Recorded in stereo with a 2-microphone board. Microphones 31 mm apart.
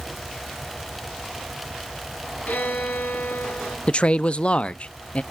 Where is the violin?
80° left, 4 m.